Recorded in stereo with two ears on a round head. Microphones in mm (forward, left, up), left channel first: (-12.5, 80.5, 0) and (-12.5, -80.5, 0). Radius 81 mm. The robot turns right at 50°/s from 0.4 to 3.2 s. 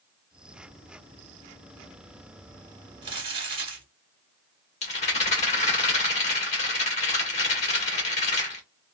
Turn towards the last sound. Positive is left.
turn(degrees=40)  # may be behind; listen again after turning